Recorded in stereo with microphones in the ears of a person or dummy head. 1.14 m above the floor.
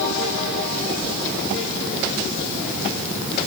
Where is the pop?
I don't hear a pop.